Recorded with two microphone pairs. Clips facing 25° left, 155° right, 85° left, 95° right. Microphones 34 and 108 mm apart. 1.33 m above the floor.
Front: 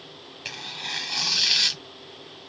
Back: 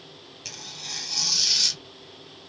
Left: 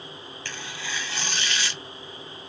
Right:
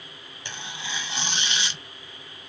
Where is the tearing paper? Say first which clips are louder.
Front 6 dB, even; 25° right, 0.8 m.